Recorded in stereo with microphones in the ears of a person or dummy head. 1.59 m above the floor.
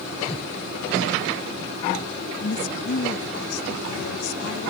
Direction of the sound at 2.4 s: 55° left (ahead or behind).